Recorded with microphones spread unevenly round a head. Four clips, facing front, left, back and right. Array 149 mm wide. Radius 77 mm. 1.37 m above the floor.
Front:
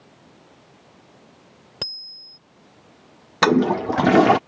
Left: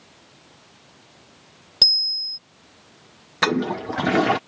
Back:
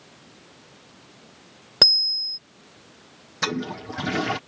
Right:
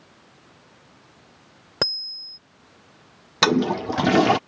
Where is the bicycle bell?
135° right.